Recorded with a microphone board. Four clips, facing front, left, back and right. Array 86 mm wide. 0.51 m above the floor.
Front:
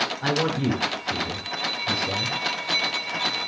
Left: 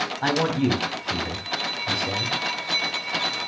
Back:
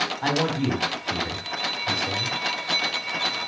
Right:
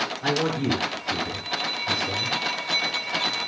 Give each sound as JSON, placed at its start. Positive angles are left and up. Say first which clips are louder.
{"t": 0.2, "sound": "a man speaking", "louder": "left 3 dB, even", "azimuth_deg": 110, "distance_m": 3.5}